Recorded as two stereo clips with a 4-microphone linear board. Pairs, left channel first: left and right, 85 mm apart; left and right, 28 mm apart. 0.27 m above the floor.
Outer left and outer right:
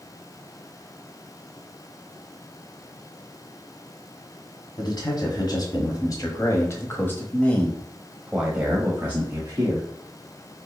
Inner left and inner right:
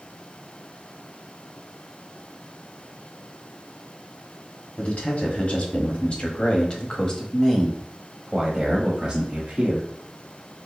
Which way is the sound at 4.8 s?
55° left (ahead or behind).